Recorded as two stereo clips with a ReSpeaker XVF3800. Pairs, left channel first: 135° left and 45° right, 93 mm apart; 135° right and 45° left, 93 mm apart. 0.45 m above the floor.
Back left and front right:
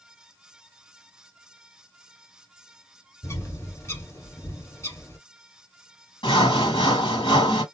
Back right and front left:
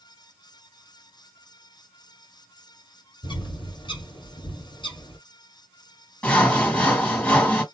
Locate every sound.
3.2 s a bird: 165° right, 1.7 m
6.2 s sawing: 155° left, 2.5 m